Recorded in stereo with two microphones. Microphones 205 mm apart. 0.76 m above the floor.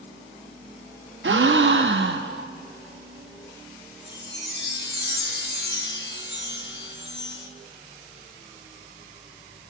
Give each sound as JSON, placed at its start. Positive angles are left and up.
{"t": 1.2, "sound": "a gasp", "side_deg": -65, "distance_m": 0.5}
{"t": 4.1, "sound": "a chime", "side_deg": 55, "distance_m": 0.8}